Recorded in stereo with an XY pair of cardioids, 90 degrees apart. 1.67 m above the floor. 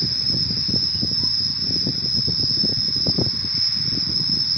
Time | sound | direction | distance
0.0 | an insect | 15° right | 1.2 m